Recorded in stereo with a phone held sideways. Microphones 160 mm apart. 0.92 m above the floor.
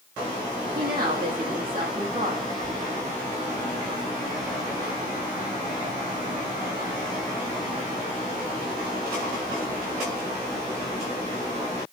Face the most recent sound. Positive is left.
turn(degrees=-65)  # may be behind; listen again after turning